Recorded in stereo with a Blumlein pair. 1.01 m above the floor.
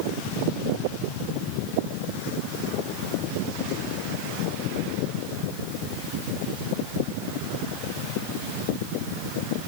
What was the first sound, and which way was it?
Only background noise.